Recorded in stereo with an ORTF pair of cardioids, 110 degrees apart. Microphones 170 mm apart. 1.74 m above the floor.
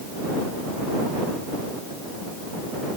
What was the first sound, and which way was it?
Only background noise.